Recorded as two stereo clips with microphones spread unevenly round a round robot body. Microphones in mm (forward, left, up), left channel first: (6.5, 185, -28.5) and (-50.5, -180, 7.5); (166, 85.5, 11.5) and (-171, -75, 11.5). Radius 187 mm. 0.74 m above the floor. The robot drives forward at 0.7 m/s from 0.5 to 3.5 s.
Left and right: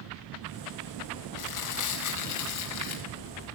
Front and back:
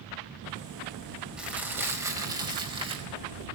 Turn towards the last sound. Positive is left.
turn(degrees=135)